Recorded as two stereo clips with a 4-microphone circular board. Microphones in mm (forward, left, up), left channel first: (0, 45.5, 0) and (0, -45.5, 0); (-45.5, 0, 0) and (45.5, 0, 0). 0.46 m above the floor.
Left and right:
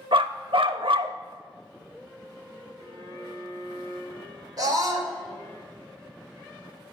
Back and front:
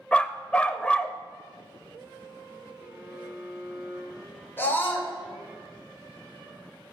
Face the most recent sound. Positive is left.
turn(degrees=-120)